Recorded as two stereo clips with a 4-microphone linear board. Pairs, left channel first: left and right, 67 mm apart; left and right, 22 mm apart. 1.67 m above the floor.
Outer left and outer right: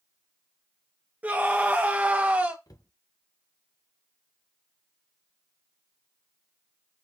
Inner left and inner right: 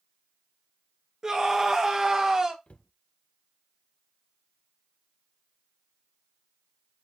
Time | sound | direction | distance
1.2 | a scream | 25° right (ahead or behind) | 3 m
2.7 | a cupboard door | 65° left (ahead or behind) | 1.2 m